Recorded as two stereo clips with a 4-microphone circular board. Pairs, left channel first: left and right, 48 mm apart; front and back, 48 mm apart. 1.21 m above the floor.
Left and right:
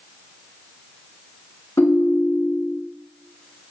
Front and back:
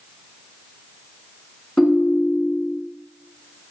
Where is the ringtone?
80° left, 1.3 m.